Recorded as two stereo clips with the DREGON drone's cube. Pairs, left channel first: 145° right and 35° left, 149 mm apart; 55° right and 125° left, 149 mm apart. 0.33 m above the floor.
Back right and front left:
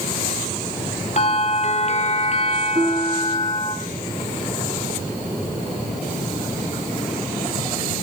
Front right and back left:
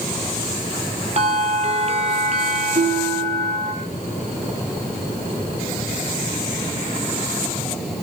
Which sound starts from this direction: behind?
A bell, at 1.2 s.